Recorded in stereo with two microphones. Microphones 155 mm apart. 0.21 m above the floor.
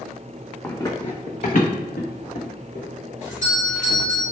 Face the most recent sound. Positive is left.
turn(degrees=-20)  # may be behind; listen again after turning